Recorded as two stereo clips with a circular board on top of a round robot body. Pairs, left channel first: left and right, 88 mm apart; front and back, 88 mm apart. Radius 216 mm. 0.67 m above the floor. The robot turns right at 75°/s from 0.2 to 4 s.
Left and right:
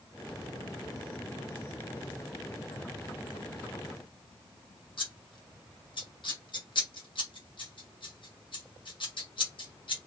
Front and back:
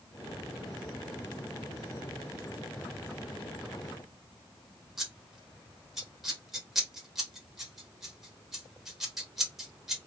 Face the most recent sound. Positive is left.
turn(degrees=90)